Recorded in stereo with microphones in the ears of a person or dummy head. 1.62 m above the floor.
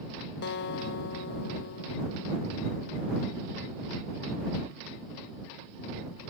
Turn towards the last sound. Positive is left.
turn(degrees=60)  # may be behind; listen again after turning